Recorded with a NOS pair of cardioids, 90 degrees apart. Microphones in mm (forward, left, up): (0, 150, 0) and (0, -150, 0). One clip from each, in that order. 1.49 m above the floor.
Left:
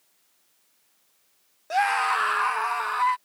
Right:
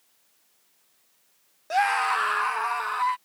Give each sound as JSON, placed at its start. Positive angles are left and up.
{"t": 1.7, "sound": "a scream", "azimuth_deg": 0}